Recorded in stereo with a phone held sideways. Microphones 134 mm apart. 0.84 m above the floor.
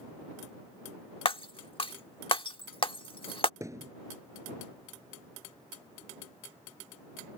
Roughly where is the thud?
Right.